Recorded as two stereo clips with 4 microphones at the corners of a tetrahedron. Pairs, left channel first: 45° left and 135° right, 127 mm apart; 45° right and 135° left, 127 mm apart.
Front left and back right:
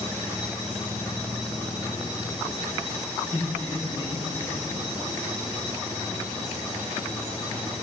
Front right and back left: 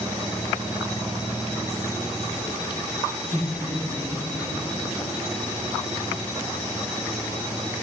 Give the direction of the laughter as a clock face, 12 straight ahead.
7 o'clock.